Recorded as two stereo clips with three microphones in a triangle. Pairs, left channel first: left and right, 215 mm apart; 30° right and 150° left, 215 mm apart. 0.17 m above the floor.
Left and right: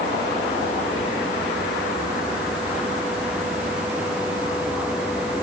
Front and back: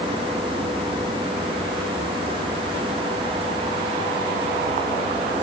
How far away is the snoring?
I don't hear snoring.